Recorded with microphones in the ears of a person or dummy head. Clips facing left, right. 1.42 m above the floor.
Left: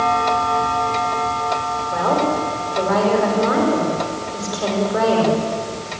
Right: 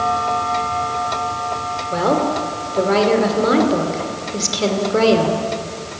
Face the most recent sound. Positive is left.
turn(degrees=-40)  # may be behind; listen again after turning